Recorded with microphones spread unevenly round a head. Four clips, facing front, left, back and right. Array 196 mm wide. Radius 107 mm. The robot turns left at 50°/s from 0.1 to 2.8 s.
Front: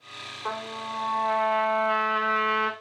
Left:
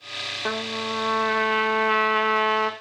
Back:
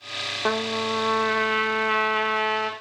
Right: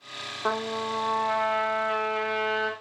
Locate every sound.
0.5 s a trumpet: 175° left, 2 m; by 2.7 s 65° left, 2 m